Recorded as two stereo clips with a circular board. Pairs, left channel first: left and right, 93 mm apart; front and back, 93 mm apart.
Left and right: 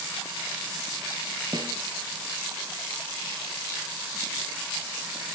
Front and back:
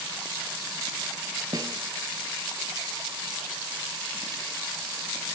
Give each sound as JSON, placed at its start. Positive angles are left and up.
{"t": 1.5, "sound": "a snare drum", "azimuth_deg": -135, "distance_m": 2.5}